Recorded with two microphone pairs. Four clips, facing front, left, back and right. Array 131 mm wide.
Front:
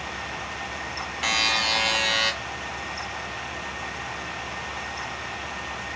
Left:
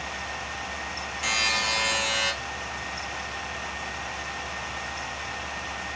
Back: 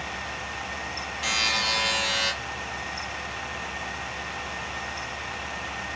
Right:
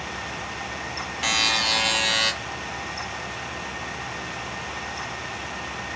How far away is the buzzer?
About 0.9 m.